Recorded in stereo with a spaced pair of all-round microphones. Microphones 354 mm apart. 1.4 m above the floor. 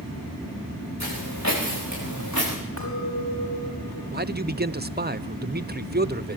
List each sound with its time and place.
1.0 s footsteps: 50° left (ahead or behind), 10 m; by 2.5 s 55° left (ahead or behind), 9 m
2.8 s a clink: 55° left (ahead or behind), 5.5 m
4.1 s a man speaking: 25° right (ahead or behind), 0.7 m